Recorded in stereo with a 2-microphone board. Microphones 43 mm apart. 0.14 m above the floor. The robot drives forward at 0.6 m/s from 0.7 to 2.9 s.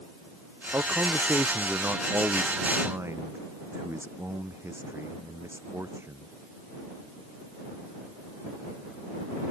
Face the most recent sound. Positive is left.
turn(degrees=-80)